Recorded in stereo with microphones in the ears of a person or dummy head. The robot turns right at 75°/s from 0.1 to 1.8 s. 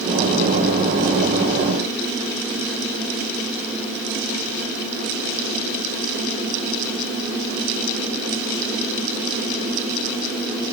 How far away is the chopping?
No chopping in this recording.